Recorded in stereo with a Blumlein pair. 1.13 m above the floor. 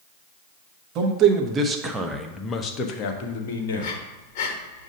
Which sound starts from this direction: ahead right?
A man speaking, at 0.9 s.